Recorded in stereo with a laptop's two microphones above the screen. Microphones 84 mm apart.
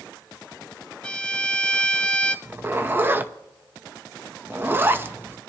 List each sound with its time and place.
1.0 s a violin: 10° left (ahead or behind), 0.5 m
2.5 s a zipper: 25° right (ahead or behind), 0.8 m